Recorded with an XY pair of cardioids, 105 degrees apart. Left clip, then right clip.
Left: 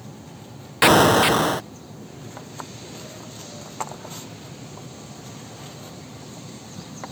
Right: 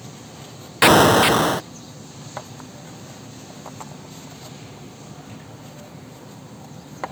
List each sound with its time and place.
0.8 s an explosion: 15° right